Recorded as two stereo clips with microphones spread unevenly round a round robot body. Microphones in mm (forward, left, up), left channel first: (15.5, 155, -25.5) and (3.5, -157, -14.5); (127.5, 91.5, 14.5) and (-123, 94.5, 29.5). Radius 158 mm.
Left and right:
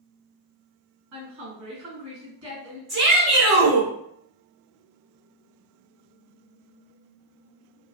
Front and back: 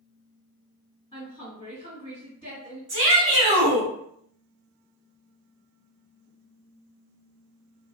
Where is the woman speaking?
65° right, 1.9 m.